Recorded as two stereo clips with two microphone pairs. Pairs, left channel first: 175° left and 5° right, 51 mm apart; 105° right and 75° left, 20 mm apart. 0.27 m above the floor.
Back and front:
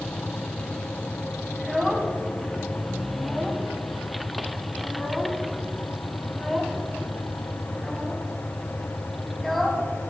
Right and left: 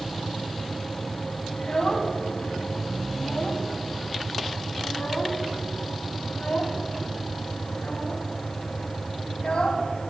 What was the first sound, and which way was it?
A child speaking, 95° right.